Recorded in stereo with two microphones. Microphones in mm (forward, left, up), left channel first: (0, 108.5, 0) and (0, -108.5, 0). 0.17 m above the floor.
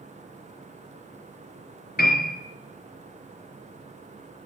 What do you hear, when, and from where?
2.0 s a piano: 45° left (ahead or behind), 3 m